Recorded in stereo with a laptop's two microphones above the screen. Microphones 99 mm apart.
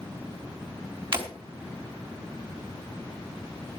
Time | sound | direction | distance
1.1 | breaking glass | 50° right (ahead or behind) | 4 m